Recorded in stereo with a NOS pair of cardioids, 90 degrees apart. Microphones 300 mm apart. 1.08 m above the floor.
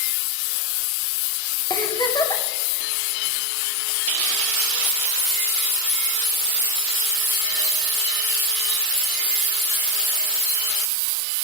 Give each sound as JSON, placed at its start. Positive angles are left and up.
{"t": 1.7, "sound": "a giggle", "azimuth_deg": 15, "distance_m": 3.0}